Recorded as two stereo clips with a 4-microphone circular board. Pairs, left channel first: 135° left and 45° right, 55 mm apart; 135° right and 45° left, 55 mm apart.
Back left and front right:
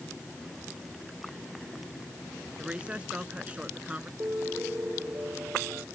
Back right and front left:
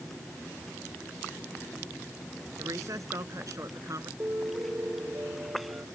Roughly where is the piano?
Ahead.